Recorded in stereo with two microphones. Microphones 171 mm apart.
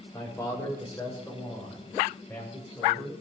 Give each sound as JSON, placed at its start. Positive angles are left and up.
{"t": 0.1, "sound": "a man speaking", "side_deg": 15, "distance_m": 8.5}